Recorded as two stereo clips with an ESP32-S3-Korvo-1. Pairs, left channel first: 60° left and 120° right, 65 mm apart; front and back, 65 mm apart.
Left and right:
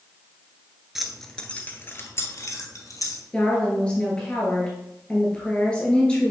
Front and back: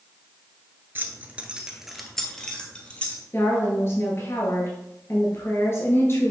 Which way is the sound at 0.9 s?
160° left.